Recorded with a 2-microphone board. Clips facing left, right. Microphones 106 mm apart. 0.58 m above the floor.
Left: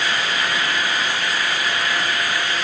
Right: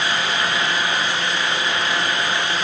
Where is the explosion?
No explosion in this recording.